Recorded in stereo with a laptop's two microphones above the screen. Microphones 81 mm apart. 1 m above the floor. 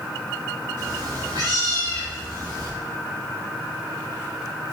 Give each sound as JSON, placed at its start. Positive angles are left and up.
{"t": 0.8, "sound": "a cat meowing", "side_deg": -75, "distance_m": 3.0}